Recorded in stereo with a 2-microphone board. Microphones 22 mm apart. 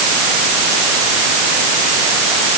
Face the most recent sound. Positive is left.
No sound to turn to.